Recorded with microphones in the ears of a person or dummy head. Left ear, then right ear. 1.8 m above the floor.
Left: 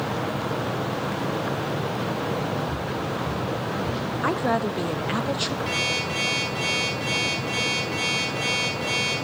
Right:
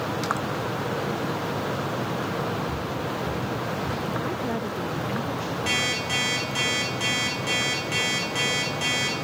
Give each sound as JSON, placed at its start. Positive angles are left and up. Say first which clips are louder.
{"t": 2.7, "sound": "footsteps", "louder": "left 1 dB", "side_deg": -5, "distance_m": 4.5}
{"t": 4.2, "sound": "a woman speaking", "louder": "left 5 dB", "side_deg": 45, "distance_m": 0.5}
{"t": 5.7, "sound": "an alarm clock", "louder": "right 3 dB", "side_deg": -40, "distance_m": 8.5}